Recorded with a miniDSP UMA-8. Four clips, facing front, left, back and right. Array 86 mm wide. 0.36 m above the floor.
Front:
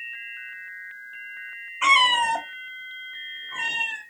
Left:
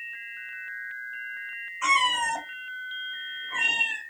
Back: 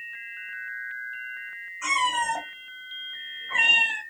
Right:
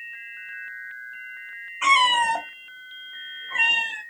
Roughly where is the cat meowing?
Ahead right.